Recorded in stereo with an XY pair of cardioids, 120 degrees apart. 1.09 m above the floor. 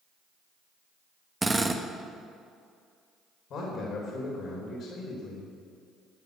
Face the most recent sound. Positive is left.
turn(degrees=55)